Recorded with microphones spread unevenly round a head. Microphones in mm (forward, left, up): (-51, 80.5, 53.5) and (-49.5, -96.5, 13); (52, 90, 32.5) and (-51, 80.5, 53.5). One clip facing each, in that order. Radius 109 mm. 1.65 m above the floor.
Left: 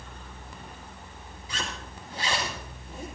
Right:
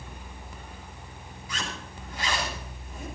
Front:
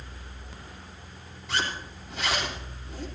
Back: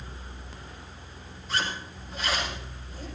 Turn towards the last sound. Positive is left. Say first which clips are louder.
# even, even
turn(degrees=25)